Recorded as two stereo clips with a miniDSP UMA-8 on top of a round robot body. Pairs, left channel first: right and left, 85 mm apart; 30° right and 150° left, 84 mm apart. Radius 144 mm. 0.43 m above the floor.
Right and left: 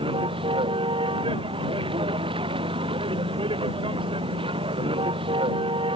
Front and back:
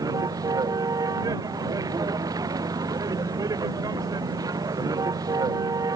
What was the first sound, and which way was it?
A vehicle, 105° left.